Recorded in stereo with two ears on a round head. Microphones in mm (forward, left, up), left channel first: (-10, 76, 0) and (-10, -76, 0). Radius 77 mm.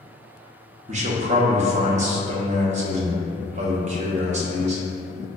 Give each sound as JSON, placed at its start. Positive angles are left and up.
{"t": 0.9, "sound": "a man speaking", "side_deg": -40, "distance_m": 0.6}